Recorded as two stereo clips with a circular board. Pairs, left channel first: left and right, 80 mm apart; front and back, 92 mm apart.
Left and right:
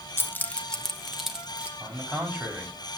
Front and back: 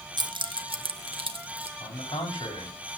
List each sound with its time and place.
0.2 s keys jangling: 145° left, 0.8 m; by 1.7 s 165° right, 1.3 m
1.8 s a man speaking: 30° right, 5 m